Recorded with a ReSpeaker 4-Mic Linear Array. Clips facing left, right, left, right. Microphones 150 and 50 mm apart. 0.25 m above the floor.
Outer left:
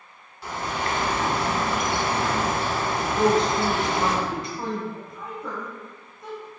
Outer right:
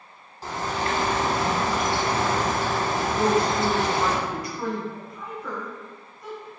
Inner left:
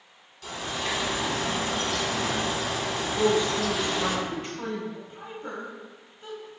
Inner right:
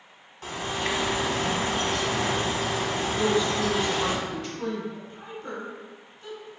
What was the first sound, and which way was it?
A bird, 40° right (ahead or behind).